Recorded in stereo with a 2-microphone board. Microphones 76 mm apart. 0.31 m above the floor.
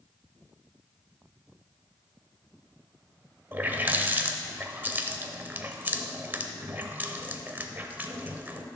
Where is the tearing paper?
I don't hear tearing paper.